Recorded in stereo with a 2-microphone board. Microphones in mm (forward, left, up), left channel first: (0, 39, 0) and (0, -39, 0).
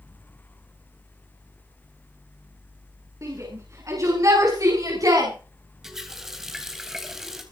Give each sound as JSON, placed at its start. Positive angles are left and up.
{"t": 3.2, "sound": "a shout", "side_deg": -40, "distance_m": 8.5}
{"t": 5.8, "sound": "a running tap", "side_deg": -5, "distance_m": 3.5}